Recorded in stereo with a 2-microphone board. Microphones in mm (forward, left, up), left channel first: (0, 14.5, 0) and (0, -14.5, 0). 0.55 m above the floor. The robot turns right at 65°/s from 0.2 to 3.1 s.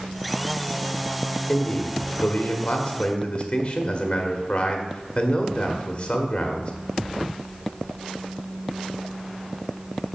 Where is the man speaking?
30° left, 1.5 m; by 6.7 s 135° left, 1.5 m.